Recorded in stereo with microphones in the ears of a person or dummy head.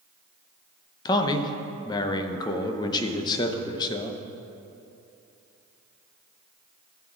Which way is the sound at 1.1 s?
30° left (ahead or behind).